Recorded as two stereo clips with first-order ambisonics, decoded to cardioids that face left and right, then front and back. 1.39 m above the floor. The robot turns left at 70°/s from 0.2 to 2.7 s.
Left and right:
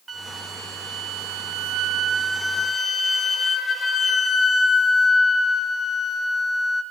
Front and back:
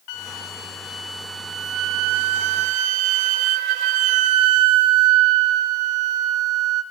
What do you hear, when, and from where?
0.1 s a flute: 20° right, 1.2 m; by 6.8 s 165° left, 1.2 m